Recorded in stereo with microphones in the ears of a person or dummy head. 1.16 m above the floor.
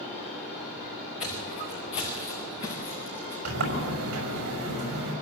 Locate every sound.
1.2 s footsteps: 35° left (ahead or behind), 7.5 m; by 3.4 s 25° left (ahead or behind), 6 m
3.5 s a sliding door: 60° right (ahead or behind), 5.5 m